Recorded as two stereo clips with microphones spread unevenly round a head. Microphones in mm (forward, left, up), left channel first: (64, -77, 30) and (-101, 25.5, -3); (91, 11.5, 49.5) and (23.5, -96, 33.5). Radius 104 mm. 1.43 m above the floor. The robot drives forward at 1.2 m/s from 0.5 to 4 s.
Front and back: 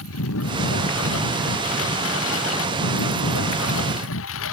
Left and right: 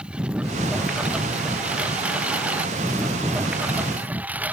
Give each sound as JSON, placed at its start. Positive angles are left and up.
{"t": 0.0, "sound": "a lawn mower", "azimuth_deg": -40}